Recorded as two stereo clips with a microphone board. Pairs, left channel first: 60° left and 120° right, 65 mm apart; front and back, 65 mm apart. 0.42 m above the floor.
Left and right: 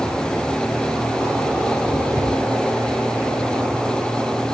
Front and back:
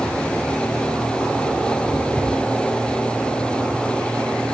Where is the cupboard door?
70° right, 4.5 m.